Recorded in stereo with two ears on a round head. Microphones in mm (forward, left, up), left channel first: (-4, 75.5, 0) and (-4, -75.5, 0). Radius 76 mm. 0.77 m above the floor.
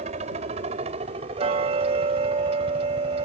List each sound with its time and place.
0.0 s a helicopter: 45° right (ahead or behind); by 3.2 s 30° right (ahead or behind)
1.4 s ticking: 40° right (ahead or behind)